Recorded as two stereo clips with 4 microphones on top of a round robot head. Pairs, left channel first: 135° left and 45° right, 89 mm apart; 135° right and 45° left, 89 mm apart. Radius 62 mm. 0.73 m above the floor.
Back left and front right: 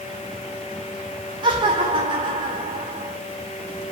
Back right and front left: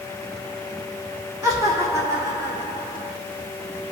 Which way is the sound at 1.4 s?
15° right.